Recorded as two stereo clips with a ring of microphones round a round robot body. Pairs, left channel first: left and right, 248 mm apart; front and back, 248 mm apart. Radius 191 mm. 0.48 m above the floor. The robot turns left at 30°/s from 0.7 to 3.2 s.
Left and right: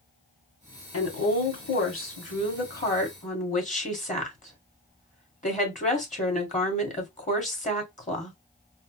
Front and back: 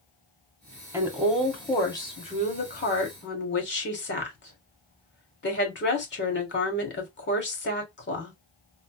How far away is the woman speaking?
About 2.5 m.